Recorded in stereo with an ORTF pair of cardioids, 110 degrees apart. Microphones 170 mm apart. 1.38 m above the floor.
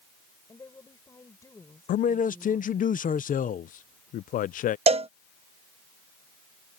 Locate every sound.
0.5 s a woman speaking: 20° left
1.9 s a man speaking: 55° left
4.9 s a cowbell: 35° right